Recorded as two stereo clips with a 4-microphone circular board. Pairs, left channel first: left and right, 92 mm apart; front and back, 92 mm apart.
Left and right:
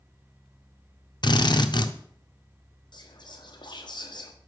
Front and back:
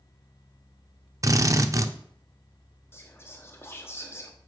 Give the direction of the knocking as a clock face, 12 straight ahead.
No knocking in this recording.